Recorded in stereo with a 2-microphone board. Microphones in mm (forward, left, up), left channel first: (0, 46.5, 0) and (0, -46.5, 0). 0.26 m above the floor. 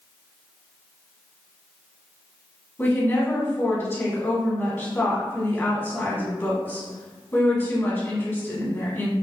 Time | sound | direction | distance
2.8 | a woman speaking | 25° left (ahead or behind) | 1.6 m